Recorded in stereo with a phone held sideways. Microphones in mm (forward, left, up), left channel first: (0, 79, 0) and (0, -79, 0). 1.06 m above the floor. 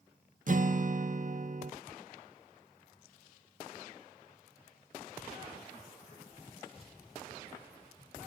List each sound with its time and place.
0.5 s a guitar: 55° right (ahead or behind), 0.7 m